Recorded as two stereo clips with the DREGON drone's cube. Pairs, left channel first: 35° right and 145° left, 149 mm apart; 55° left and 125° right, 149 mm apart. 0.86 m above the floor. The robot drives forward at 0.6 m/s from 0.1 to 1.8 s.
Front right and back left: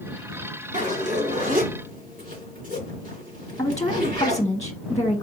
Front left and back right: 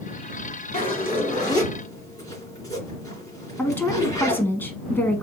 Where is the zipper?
105° left, 2 m; by 4.4 s 120° left, 2.5 m.